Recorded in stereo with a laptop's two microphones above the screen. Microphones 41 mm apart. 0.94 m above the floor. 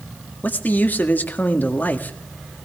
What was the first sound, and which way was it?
A man speaking, 50° left (ahead or behind).